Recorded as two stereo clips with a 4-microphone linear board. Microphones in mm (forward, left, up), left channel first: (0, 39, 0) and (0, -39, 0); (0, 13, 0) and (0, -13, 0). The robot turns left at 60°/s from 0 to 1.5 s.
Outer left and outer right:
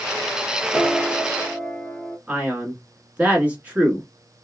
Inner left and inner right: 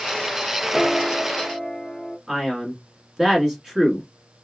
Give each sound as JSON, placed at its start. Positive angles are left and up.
{"t": 0.7, "sound": "a piano", "side_deg": -10, "distance_m": 1.5}
{"t": 2.3, "sound": "a man speaking", "side_deg": -20, "distance_m": 1.1}